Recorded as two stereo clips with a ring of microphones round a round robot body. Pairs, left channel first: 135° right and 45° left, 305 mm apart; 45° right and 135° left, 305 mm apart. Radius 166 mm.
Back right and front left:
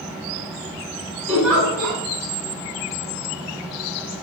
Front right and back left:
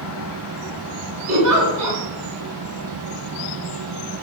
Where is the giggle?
130° left, 2.5 m.